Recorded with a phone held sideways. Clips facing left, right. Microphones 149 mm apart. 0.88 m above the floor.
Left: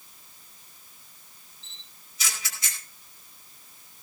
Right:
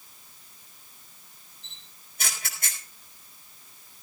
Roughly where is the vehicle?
I don't hear a vehicle.